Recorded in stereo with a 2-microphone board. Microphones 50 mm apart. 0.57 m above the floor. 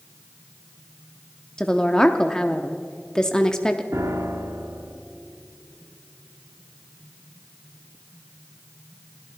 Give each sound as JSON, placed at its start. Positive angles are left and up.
{"t": 1.6, "sound": "a woman speaking", "side_deg": 15, "distance_m": 0.8}
{"t": 3.9, "sound": "a piano", "side_deg": -70, "distance_m": 1.4}